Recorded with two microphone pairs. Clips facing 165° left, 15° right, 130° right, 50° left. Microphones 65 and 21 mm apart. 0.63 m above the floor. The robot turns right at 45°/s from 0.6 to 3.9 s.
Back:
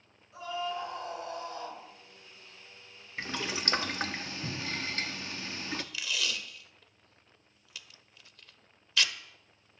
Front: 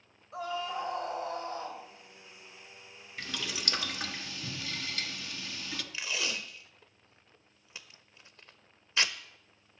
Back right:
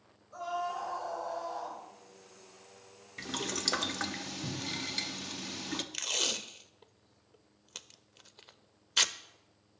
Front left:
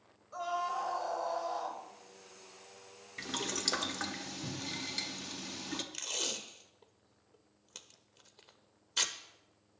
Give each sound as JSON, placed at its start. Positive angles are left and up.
{"t": 0.3, "sound": "a scream", "azimuth_deg": -5, "distance_m": 3.0}
{"t": 3.2, "sound": "boiling", "azimuth_deg": 130, "distance_m": 0.7}
{"t": 5.9, "sound": "tape being pulled", "azimuth_deg": -75, "distance_m": 0.5}